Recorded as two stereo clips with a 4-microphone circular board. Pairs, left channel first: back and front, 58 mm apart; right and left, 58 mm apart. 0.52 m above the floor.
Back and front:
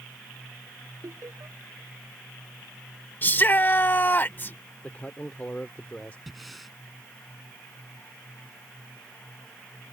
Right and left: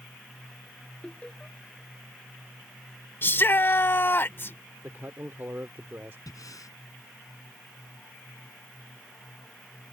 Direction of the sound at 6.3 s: 90° right.